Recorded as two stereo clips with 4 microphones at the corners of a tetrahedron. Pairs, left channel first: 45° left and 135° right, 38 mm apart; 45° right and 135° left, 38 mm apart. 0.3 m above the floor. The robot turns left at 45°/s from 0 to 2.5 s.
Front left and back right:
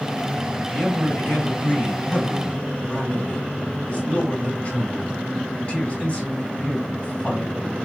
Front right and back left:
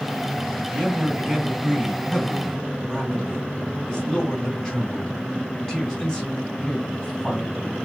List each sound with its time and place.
0.7 s a man speaking: 95° left, 2.0 m; by 7.8 s 10° left, 2.0 m